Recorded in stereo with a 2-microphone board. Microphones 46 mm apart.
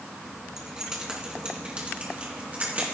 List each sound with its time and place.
0.6 s keys jangling: 10° right (ahead or behind), 3 m; by 3.0 s 40° right (ahead or behind), 3 m